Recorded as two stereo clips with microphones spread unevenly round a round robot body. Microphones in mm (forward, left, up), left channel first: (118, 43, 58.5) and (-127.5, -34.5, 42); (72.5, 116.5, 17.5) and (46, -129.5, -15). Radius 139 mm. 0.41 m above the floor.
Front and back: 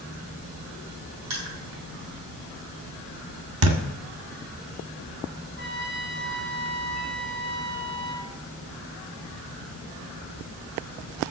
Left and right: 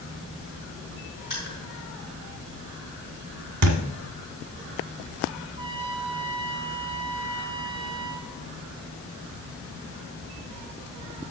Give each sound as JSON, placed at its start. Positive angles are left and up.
{"t": 1.3, "sound": "crushing", "azimuth_deg": 180, "distance_m": 4.0}
{"t": 3.6, "sound": "a thud", "azimuth_deg": -130, "distance_m": 1.2}
{"t": 5.6, "sound": "a trumpet", "azimuth_deg": -150, "distance_m": 1.6}